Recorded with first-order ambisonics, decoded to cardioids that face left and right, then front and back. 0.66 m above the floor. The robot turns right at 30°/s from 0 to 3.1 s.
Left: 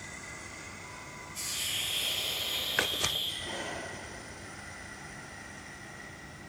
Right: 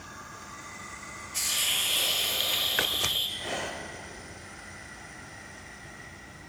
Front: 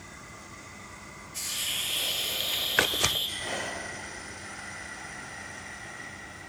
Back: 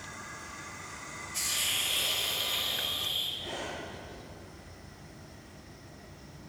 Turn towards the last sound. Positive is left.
turn(degrees=-55)